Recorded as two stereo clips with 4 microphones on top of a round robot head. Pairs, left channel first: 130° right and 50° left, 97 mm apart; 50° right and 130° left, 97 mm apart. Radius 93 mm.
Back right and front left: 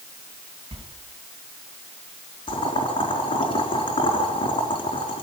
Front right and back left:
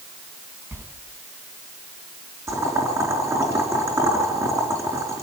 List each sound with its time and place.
0.7 s a sliding door: 65° left, 4.5 m
2.5 s boiling: 165° right, 4.5 m